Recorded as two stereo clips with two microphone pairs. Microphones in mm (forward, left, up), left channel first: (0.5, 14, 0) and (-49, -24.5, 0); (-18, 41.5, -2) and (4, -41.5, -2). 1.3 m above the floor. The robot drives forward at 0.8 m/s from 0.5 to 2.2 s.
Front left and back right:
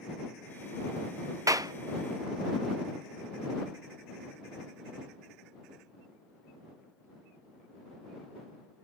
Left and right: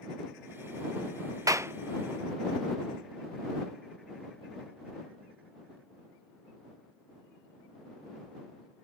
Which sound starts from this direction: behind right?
A clap, at 1.5 s.